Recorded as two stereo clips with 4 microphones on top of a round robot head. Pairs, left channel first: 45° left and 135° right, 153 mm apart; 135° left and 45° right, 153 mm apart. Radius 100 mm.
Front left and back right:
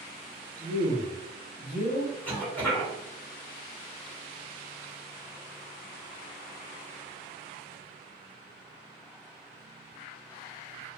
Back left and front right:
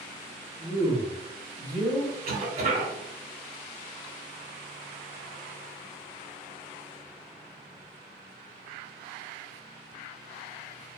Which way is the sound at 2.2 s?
30° right.